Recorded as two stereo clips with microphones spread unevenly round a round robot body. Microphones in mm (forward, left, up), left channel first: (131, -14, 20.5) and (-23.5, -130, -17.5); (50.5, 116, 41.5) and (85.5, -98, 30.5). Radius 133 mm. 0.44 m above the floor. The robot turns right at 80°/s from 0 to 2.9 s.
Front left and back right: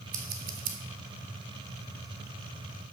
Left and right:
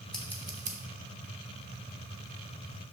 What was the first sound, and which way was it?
Scissors, 175° right.